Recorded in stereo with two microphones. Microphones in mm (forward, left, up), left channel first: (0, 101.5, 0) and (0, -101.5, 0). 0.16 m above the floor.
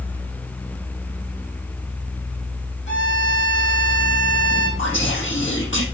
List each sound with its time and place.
2.9 s a violin: 60° left (ahead or behind), 3.5 m
4.8 s whispering: 65° left (ahead or behind), 5 m